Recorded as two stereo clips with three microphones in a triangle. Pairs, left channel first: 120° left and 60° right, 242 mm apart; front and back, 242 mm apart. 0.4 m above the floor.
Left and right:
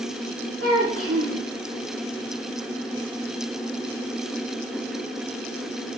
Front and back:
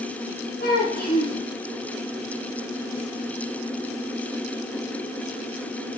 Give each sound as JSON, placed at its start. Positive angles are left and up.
{"t": 0.6, "sound": "a child speaking", "azimuth_deg": -50, "distance_m": 3.0}